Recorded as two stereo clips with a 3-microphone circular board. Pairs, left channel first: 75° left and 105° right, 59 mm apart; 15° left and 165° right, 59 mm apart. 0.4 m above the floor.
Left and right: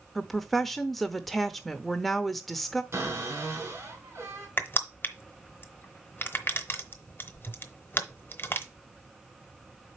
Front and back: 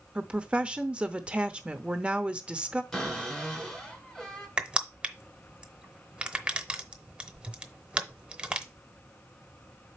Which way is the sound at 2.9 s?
70° right.